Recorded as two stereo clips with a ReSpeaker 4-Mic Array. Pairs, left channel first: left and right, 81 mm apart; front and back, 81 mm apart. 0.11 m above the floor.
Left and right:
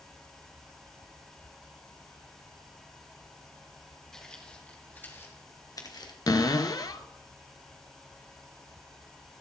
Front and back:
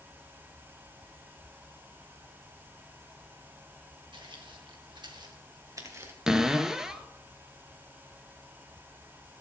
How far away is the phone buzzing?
No phone buzzing in this recording.